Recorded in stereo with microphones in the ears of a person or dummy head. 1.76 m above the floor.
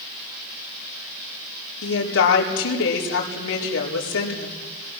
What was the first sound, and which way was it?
A woman speaking, 80° left.